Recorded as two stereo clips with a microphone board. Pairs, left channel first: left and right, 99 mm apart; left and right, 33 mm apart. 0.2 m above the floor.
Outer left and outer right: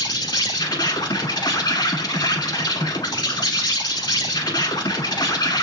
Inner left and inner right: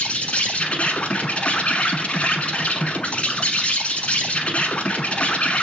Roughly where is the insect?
Left.